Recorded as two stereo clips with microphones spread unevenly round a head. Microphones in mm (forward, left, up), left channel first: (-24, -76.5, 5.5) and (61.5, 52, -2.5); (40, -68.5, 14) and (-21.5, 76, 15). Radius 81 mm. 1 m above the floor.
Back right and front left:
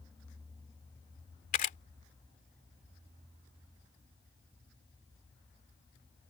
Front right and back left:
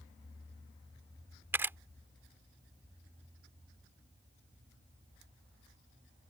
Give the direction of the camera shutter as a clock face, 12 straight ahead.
6 o'clock.